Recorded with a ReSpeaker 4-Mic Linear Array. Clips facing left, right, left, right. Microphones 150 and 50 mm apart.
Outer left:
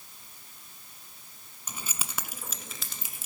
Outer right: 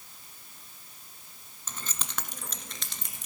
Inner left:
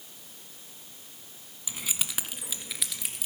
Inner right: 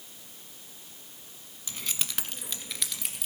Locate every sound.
1.7 s keys jangling: 10° left (ahead or behind), 1.0 m; by 3.3 s 5° left (ahead or behind), 2.5 m